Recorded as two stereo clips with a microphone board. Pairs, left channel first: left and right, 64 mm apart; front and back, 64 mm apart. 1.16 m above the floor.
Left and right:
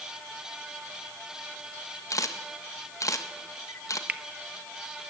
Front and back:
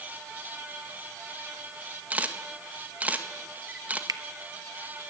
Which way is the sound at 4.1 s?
155° right.